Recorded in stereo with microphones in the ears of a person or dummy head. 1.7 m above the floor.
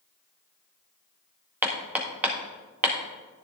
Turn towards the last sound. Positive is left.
turn(degrees=-5)  # may be behind; listen again after turning